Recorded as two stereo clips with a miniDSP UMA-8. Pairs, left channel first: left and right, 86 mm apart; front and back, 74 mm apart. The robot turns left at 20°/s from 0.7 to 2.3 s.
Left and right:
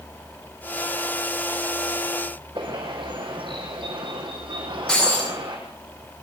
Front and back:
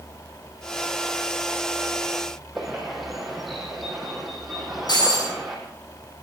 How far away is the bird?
About 5 m.